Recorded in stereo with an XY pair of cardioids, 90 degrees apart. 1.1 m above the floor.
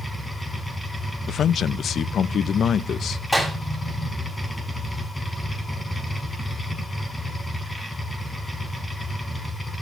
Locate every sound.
0.0 s a machine running: 25° left, 4.5 m
1.3 s a man speaking: 70° left, 0.6 m
3.3 s a clap: 10° left, 6.5 m